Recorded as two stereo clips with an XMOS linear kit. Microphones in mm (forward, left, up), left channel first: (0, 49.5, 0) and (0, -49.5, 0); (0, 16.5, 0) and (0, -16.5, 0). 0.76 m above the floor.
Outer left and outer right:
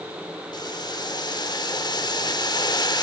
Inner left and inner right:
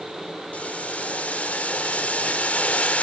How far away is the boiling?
About 1.0 m.